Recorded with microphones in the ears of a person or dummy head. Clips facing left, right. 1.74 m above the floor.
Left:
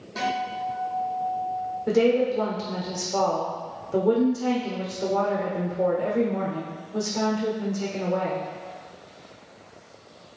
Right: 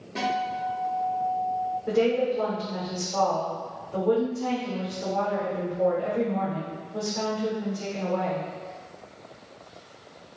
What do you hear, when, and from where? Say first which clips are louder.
0.1 s a guitar: even; 35° right (ahead or behind), 1.2 m
1.9 s a woman speaking: left 3 dB; 40° left (ahead or behind), 0.8 m